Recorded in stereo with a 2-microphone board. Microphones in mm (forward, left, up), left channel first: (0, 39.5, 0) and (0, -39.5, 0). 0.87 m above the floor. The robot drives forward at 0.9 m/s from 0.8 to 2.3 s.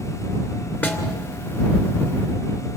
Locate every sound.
0.8 s a snare drum: 20° left (ahead or behind), 2.5 m